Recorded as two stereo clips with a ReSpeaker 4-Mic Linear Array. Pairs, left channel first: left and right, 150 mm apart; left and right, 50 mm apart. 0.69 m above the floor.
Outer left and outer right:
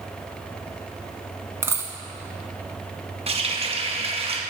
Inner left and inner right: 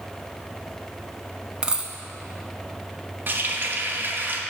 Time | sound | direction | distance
1.6 | a dropped coin | 20° right (ahead or behind) | 0.6 m
3.3 | a running tap | 40° right (ahead or behind) | 0.5 m